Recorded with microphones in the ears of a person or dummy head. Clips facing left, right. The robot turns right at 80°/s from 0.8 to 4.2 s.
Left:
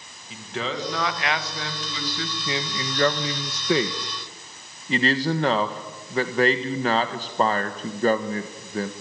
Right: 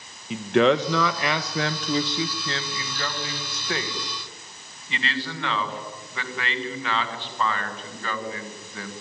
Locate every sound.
0.3 s a man speaking: 55° right (ahead or behind), 1.4 m; by 8.9 s 30° left (ahead or behind), 1.4 m